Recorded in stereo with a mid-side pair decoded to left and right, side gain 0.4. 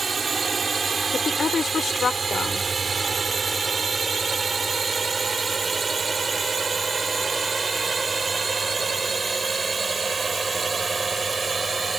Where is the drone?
40° right; by 12.0 s 30° right.